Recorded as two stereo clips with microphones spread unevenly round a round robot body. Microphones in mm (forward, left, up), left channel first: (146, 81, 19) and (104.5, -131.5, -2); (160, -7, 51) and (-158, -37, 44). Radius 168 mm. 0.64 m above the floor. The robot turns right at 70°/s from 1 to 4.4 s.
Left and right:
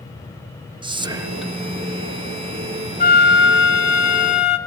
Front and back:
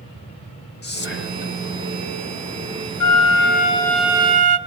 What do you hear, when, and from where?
0.8 s whispering: 45° right, 1.4 m; by 1.5 s 5° right, 1.4 m
3.0 s a flute: 25° left, 1.0 m; by 4.6 s 125° left, 1.0 m